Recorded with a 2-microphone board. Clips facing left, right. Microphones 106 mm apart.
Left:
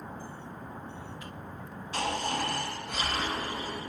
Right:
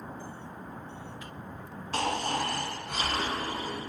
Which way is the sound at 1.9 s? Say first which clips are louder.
Right 2 dB; 50° right (ahead or behind).